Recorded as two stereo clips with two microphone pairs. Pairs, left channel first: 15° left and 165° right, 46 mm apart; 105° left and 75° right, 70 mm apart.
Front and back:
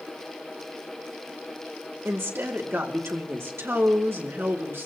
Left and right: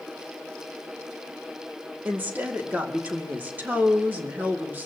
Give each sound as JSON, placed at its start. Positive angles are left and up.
{"t": 2.0, "sound": "a woman speaking", "azimuth_deg": -140, "distance_m": 2.5}